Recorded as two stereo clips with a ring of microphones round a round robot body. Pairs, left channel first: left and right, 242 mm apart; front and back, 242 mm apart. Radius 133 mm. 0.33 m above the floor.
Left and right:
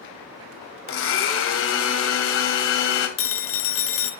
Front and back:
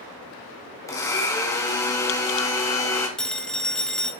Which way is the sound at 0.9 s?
75° left.